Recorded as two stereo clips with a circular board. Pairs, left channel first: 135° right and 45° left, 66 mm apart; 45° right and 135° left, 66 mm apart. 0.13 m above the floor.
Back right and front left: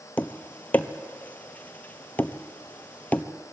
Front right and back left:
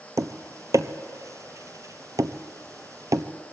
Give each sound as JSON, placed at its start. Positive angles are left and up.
{"t": 0.2, "sound": "tapping", "azimuth_deg": 160, "distance_m": 1.1}